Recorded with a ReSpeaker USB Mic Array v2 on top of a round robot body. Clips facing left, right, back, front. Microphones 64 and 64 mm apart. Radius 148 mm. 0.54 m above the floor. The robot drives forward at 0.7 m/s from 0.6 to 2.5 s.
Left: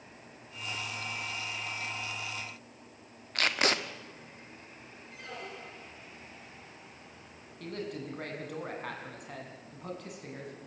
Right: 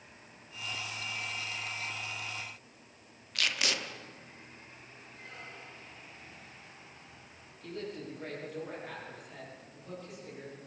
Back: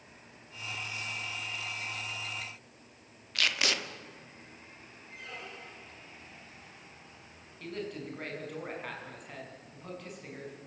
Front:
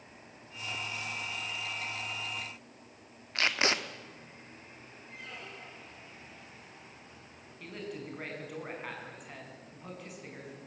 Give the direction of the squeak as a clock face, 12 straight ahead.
9 o'clock.